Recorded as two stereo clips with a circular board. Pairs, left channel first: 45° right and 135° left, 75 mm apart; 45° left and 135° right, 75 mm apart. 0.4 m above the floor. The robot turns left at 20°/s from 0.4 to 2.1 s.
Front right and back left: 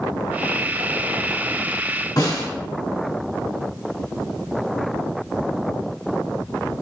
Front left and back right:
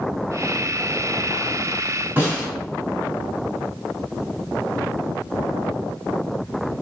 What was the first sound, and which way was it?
A snare drum, 70° right.